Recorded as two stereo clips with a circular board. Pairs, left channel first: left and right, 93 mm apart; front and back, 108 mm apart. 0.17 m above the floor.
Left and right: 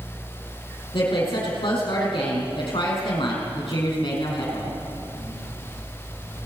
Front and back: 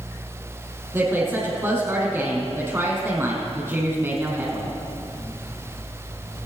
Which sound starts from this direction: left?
A woman speaking, at 0.9 s.